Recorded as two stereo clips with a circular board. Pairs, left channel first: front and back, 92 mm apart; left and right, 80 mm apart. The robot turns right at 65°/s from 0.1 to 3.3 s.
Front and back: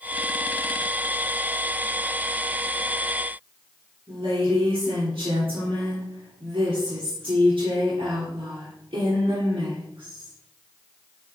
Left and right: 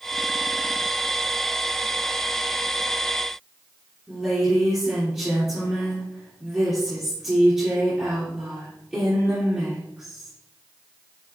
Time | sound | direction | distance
4.1 | a woman speaking | 165° right | 3.5 m